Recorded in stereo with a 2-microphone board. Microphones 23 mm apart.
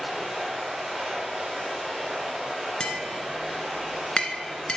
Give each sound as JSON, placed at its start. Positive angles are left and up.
{"t": 0.0, "sound": "running water", "side_deg": 5, "distance_m": 4.0}
{"t": 2.8, "sound": "tapping", "side_deg": 45, "distance_m": 1.3}